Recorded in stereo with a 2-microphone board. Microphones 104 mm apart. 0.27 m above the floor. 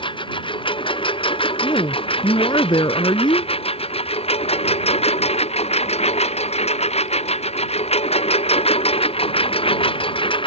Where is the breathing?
I don't hear breathing.